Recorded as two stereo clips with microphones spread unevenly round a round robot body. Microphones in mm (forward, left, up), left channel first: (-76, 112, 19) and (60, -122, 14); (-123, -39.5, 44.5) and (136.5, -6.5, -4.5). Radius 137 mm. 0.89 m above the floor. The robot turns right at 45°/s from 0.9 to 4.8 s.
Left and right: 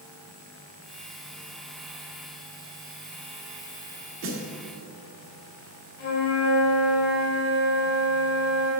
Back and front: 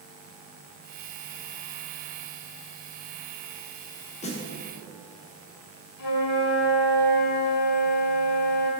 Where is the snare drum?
110° right, 1.2 m; by 4.5 s 100° right, 1.2 m.